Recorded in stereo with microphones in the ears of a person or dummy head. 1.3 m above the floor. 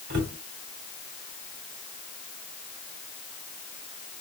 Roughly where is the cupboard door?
Right.